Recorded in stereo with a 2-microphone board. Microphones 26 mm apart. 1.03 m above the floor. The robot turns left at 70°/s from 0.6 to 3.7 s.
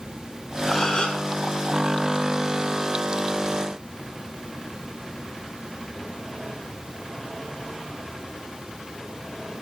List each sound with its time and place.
0.7 s a gasp: 160° left, 3.5 m; by 1.2 s 120° left, 3.5 m